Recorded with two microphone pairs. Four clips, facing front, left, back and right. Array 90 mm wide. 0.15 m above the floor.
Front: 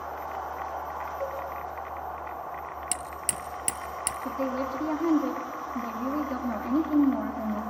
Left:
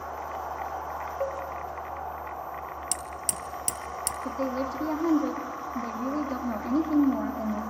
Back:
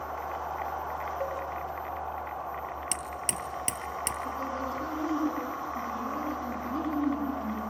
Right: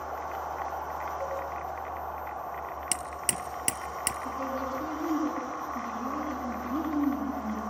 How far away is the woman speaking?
About 6.5 m.